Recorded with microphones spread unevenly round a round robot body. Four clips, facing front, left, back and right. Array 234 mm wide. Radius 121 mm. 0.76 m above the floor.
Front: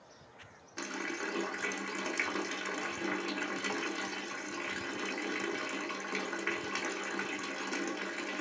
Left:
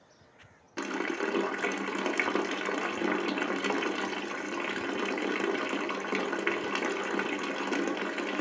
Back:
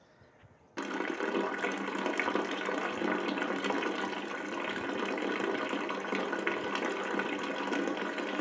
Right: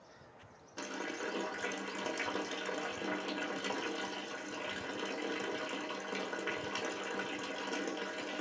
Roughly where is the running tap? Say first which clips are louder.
Left 9 dB, back 5 dB; left.